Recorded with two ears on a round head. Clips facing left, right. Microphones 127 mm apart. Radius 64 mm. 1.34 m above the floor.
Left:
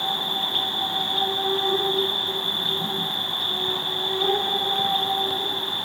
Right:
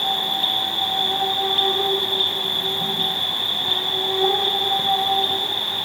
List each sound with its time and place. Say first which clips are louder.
0.0 s an insect: right 3 dB; 5° right (ahead or behind), 1.7 m